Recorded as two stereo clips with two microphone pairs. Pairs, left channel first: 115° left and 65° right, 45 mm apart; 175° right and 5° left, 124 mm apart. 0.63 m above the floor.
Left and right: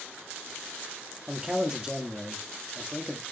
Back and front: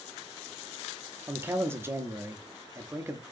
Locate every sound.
1.3 s a man speaking: 10° right, 0.8 m